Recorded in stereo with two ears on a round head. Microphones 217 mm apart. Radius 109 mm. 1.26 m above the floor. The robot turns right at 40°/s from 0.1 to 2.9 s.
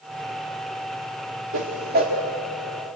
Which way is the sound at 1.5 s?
55° right (ahead or behind).